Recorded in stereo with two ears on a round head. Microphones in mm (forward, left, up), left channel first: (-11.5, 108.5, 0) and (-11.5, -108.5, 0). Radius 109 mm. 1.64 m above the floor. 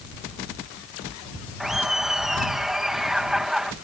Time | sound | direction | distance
1.6 | laughter | centre (ahead or behind) | ?